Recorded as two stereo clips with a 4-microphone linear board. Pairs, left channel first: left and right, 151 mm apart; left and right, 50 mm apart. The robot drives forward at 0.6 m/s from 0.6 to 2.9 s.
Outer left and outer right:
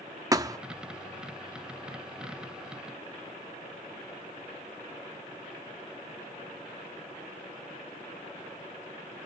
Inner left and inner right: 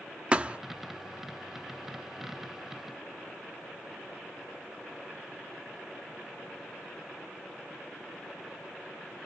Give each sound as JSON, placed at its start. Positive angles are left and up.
{"t": 0.3, "sound": "a thud", "side_deg": -25, "distance_m": 0.7}